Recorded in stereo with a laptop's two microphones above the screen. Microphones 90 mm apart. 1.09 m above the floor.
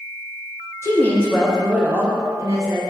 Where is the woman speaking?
30° left (ahead or behind), 0.5 m; by 2.8 s 40° right (ahead or behind), 1.0 m.